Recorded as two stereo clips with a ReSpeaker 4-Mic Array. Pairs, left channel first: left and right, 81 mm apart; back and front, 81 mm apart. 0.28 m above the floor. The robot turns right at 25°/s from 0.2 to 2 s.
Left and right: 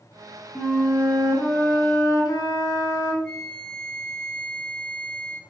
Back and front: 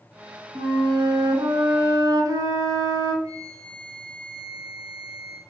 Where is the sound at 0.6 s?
10° left, 0.6 m; by 3.1 s 45° left, 0.6 m.